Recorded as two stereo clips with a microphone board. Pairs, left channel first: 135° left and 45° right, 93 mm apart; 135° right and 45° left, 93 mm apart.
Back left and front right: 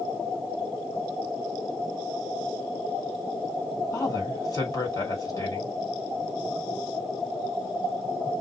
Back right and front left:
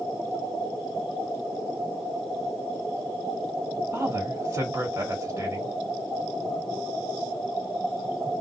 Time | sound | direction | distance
3.9 | a woman speaking | 100° left | 1.8 m